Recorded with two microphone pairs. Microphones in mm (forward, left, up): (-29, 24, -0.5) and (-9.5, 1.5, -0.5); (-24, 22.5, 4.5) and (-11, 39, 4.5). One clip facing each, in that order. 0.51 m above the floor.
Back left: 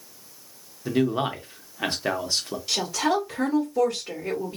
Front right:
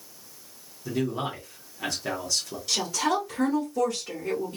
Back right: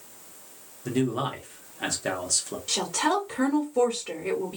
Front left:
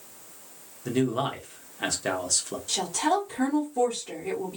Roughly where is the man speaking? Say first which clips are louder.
Back left 5 dB, front left 1 dB; behind left.